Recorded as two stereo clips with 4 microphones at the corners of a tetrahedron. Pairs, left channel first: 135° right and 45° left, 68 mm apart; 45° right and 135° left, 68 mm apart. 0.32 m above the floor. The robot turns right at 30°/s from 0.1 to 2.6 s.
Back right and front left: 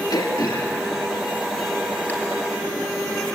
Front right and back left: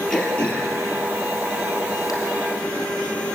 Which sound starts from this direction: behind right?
Throat clearing, at 0.1 s.